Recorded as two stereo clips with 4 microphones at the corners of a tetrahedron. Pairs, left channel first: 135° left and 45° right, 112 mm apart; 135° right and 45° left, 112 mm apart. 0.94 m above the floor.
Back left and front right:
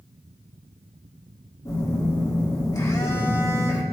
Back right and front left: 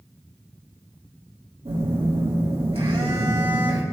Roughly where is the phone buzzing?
Left.